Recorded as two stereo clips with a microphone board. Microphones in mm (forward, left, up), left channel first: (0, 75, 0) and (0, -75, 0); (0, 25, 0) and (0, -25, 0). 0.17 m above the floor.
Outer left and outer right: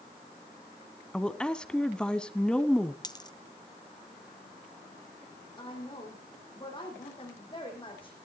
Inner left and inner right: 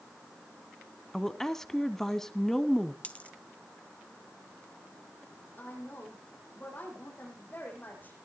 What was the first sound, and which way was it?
A woman speaking, 5° left (ahead or behind).